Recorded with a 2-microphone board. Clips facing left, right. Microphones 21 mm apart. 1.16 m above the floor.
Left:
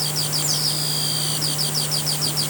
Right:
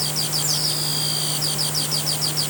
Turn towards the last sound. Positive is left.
No sound to turn to.